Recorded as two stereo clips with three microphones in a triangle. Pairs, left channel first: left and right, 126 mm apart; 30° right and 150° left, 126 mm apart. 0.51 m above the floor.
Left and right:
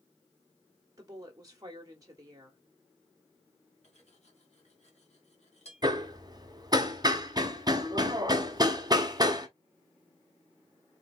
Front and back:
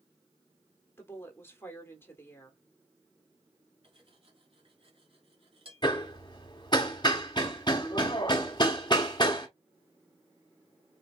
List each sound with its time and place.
1.0 s a woman speaking: 80° right, 1.1 m
3.8 s cutlery clinking: 110° left, 1.6 m
5.8 s hammering: 55° right, 1.1 m